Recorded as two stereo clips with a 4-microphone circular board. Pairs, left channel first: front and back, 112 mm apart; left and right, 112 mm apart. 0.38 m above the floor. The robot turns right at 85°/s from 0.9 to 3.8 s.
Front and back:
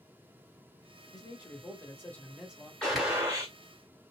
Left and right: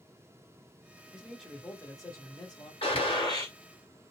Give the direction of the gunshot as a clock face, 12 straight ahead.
9 o'clock.